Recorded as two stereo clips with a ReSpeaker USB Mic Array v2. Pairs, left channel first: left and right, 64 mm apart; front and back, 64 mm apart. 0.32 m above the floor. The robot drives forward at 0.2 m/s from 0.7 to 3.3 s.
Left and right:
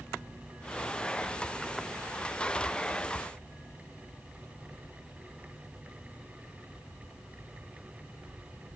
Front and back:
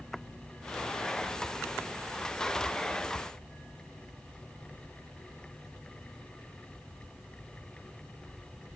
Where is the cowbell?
I don't hear a cowbell.